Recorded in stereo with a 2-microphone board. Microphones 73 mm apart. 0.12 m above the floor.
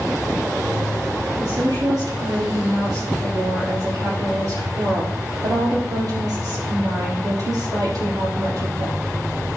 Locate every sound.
1.4 s a woman speaking: 65° right (ahead or behind), 4 m